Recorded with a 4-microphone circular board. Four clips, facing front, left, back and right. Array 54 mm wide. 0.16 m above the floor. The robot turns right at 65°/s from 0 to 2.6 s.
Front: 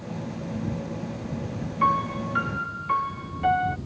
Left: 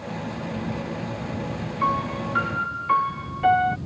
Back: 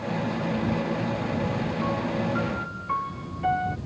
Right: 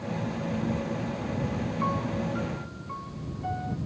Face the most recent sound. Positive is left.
turn(degrees=75)